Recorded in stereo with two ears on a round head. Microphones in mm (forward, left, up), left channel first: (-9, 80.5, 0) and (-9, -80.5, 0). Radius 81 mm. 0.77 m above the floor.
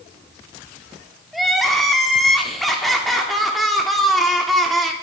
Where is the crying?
Centre (ahead or behind), 0.6 m.